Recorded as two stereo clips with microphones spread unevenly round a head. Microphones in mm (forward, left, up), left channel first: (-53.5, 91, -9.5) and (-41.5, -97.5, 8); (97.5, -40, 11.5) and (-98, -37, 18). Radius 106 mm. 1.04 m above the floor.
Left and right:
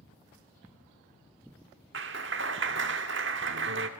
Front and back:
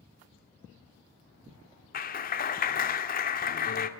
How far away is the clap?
About 2.0 m.